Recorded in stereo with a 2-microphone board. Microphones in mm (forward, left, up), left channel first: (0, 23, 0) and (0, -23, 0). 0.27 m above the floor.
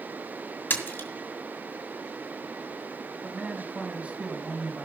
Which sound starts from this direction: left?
A splash, at 0.7 s.